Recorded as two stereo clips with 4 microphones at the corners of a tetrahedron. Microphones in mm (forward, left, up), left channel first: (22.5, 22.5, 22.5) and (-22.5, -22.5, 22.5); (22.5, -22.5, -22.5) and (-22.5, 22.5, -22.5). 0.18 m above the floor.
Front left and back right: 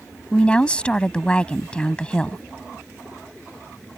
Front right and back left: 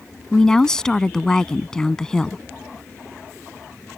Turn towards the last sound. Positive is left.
turn(degrees=10)